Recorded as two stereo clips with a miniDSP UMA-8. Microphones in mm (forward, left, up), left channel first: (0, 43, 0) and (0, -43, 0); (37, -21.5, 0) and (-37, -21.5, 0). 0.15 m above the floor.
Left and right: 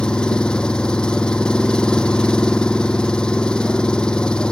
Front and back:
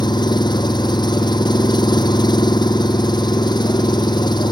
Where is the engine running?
10° left.